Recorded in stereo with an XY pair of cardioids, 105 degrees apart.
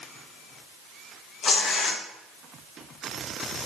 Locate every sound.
1.4 s tearing paper: 55° left, 1.5 m